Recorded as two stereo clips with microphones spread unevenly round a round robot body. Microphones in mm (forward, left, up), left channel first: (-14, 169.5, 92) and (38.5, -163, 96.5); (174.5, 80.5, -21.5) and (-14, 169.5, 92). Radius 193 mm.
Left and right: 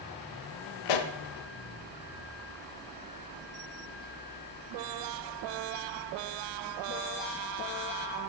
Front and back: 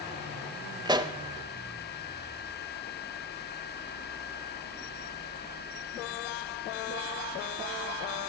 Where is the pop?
90° left, 1.0 m.